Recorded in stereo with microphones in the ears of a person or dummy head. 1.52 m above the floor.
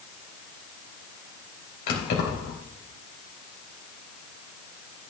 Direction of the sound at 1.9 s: 55° left (ahead or behind).